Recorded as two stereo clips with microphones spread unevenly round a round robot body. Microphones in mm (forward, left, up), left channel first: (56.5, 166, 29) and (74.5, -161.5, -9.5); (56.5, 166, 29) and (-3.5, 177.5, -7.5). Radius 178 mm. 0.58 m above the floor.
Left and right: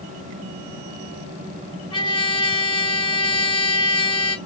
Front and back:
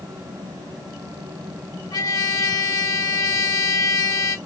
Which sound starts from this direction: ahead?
A trumpet, at 1.9 s.